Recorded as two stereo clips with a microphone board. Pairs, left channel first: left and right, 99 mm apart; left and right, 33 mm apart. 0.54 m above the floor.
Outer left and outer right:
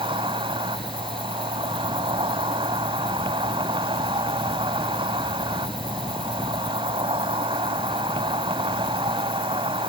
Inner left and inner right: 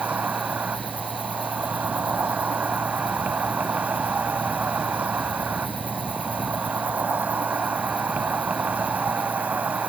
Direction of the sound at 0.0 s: 65° right (ahead or behind).